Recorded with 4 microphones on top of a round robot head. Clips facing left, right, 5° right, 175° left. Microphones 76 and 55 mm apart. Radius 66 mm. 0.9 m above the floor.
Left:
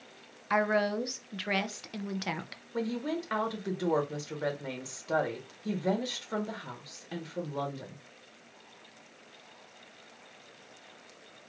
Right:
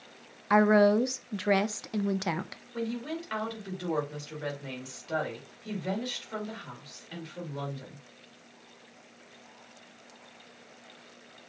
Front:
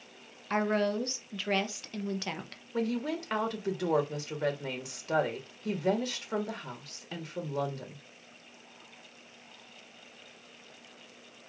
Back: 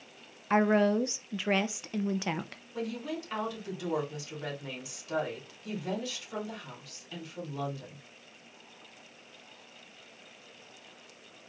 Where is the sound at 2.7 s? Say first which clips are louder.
Left 1 dB, front 4 dB; 30° left, 2 m.